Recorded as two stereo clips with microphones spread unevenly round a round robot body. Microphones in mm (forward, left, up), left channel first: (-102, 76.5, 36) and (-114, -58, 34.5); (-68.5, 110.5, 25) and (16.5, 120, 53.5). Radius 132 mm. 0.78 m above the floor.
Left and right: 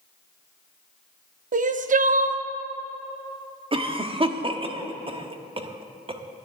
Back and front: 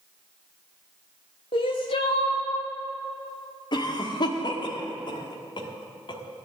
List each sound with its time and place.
1.5 s crying: 125° right, 0.7 m
3.7 s a cough: 145° right, 1.3 m